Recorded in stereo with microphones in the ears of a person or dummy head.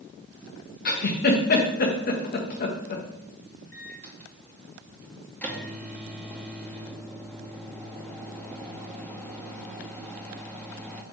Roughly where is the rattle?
No rattle in this recording.